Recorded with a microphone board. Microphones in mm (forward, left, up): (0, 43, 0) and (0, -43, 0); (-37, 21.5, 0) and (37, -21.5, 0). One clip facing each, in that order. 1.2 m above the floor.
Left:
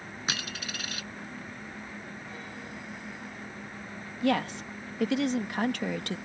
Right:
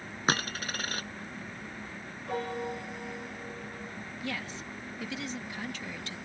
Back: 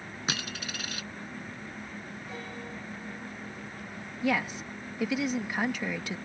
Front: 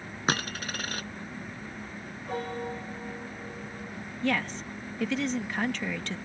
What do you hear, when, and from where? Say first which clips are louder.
0.3 s a dropped coin: right 7 dB, front 7 dB; 60° right
2.3 s a piano: right 8 dB, front 10 dB; 65° right
4.2 s a woman speaking: left 12 dB, even; 70° left